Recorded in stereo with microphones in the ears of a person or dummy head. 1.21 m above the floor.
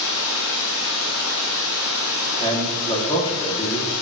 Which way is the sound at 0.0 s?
60° left (ahead or behind).